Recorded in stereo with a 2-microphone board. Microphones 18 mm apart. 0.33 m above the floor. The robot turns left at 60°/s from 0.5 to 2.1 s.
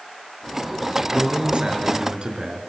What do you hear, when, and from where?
1.1 s a man speaking: 55° right, 5 m; by 2.6 s 115° right, 5 m